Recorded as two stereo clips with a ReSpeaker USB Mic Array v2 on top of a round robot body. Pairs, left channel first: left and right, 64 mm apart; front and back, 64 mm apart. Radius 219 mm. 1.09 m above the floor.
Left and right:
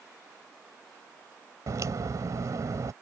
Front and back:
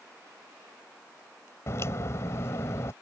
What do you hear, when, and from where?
1.7 s a crack: 50° right